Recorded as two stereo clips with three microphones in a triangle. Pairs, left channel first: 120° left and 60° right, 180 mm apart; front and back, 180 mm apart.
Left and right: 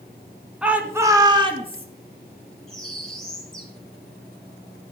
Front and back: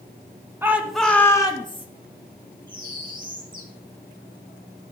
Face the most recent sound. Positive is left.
turn(degrees=-155)